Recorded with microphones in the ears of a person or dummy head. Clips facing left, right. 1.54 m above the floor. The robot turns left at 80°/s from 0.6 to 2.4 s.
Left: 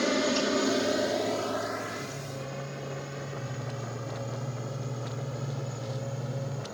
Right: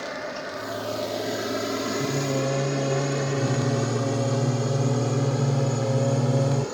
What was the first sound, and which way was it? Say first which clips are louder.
A helicopter: left 6 dB; 45° left (ahead or behind).